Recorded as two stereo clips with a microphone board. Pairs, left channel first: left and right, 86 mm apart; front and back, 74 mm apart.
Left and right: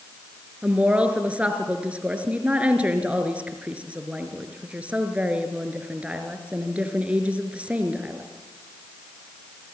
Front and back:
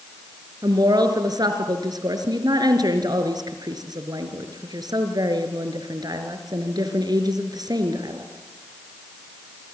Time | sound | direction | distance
0.6 | a woman speaking | 165° right | 4 m